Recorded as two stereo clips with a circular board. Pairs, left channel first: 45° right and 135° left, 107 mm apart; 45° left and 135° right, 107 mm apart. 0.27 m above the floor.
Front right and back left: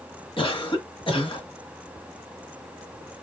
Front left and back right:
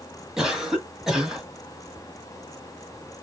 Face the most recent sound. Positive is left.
turn(degrees=-50)